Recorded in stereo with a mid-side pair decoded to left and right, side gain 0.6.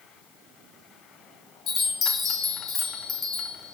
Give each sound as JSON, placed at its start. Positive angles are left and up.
{"t": 1.7, "sound": "a chime", "azimuth_deg": 40, "distance_m": 0.6}